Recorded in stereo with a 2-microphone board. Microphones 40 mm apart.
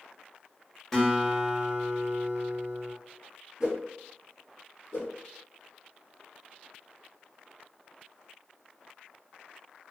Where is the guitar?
10° left (ahead or behind), 0.9 m.